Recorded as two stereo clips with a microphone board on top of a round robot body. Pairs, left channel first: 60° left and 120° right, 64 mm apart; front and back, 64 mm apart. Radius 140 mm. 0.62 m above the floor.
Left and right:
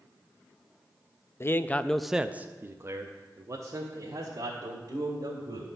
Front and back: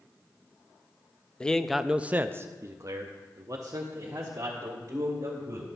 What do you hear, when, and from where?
1.4 s a man speaking: 65° left, 0.6 m; by 5.7 s 145° right, 2 m